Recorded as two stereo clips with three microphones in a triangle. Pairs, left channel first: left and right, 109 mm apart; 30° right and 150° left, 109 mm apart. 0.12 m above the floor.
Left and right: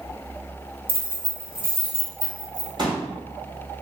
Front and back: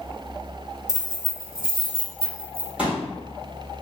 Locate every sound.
0.9 s keys jangling: 85° right, 1.7 m; by 2.7 s 35° right, 1.5 m
2.8 s a pop: 130° right, 1.6 m